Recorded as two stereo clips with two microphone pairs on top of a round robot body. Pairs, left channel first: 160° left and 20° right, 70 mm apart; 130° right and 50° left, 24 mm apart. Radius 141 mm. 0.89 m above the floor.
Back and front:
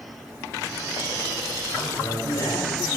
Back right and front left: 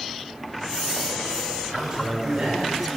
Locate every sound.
1.7 s a man speaking: 115° left, 6.5 m